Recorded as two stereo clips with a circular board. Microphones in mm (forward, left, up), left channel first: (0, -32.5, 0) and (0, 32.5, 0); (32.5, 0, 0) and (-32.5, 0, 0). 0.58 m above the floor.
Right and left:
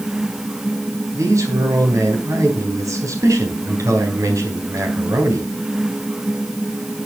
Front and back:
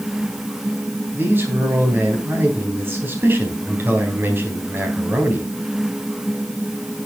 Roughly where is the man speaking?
Behind left.